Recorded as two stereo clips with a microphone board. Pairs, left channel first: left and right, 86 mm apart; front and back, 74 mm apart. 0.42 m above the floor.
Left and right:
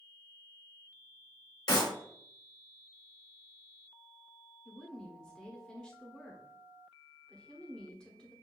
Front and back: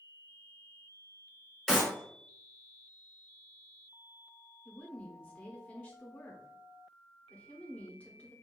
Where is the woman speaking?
30° left, 1.0 m.